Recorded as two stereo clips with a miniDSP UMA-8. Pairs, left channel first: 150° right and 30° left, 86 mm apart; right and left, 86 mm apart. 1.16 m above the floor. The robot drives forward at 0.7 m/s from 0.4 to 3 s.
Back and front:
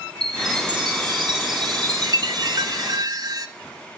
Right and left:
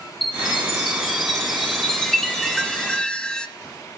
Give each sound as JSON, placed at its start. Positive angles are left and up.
{"t": 0.2, "sound": "a chime", "azimuth_deg": -5, "distance_m": 3.0}